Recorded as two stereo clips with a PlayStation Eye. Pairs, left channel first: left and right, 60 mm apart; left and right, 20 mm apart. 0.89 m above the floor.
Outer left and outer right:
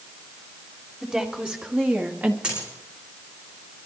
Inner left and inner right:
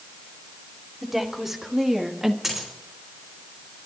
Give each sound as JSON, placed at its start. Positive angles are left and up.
{"t": 1.0, "sound": "a woman speaking", "side_deg": -15, "distance_m": 1.9}
{"t": 2.4, "sound": "a dropped coin", "side_deg": -20, "distance_m": 5.5}